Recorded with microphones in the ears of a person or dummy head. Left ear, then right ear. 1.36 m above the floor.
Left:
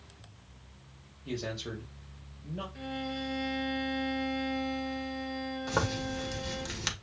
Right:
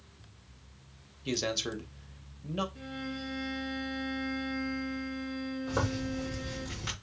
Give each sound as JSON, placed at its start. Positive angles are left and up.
{"t": 1.2, "sound": "a man speaking", "side_deg": -80, "distance_m": 1.2}
{"t": 2.8, "sound": "a violin", "side_deg": 55, "distance_m": 1.2}
{"t": 5.7, "sound": "a zipper", "side_deg": 70, "distance_m": 1.5}